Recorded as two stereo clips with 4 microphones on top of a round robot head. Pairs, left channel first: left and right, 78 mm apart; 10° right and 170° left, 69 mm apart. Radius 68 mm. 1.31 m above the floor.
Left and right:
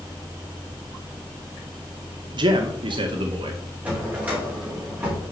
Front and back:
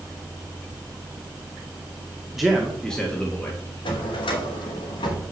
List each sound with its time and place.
2.3 s a man speaking: 105° right, 1.9 m; by 3.6 s 80° right, 2 m
3.9 s a drawer: 15° right, 3 m